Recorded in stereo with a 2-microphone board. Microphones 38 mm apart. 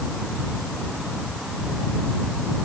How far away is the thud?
No thud in this recording.